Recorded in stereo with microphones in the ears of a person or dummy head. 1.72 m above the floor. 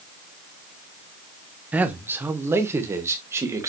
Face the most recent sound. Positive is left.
turn(degrees=-15)  # may be behind; listen again after turning